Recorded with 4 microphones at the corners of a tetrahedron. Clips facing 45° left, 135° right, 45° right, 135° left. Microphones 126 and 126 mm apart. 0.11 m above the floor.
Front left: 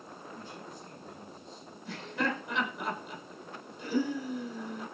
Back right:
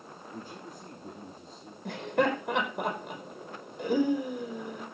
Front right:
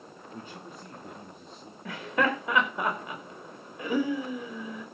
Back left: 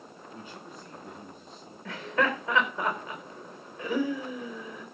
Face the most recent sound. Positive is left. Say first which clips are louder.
# back right 7 dB, front right 1 dB
turn(degrees=-120)